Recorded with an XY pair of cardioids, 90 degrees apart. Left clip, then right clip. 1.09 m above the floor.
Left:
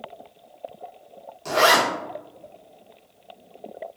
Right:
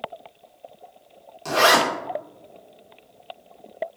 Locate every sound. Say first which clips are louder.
1.4 s a zipper: even; 30° right, 1.7 m